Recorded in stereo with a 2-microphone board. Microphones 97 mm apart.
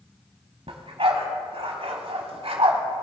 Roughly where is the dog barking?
Right.